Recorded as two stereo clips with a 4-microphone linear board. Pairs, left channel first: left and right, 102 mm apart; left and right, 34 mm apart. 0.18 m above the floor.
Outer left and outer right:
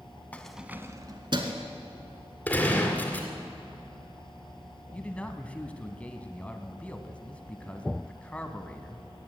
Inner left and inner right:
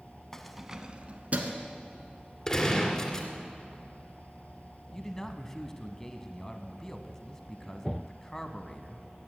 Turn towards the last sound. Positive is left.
turn(degrees=10)  # may be behind; listen again after turning